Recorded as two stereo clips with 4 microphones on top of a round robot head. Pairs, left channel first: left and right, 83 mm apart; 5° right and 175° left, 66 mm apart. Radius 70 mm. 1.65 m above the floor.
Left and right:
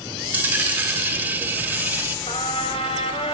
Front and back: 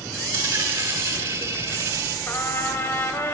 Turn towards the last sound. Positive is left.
turn(degrees=45)